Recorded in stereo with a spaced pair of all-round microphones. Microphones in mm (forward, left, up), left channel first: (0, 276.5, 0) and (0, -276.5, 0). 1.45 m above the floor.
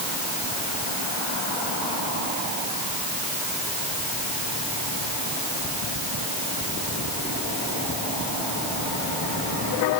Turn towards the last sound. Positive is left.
No sound to turn to.